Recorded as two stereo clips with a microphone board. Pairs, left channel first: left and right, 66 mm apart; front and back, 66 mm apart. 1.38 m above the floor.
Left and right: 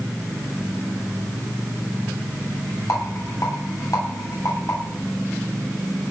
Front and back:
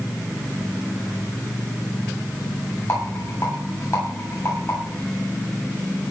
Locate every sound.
2.9 s a rattle: 50° left, 9.5 m